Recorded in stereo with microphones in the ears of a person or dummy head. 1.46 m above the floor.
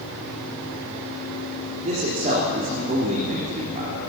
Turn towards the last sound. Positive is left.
turn(degrees=-40)  # may be behind; listen again after turning